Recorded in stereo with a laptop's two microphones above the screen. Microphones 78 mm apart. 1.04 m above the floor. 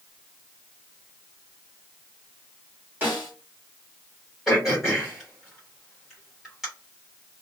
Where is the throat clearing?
5° right (ahead or behind), 1.3 m.